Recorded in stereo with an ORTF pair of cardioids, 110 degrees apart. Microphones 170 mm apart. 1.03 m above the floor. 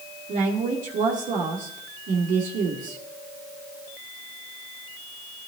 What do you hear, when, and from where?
0.3 s a woman speaking: 55° right, 2.5 m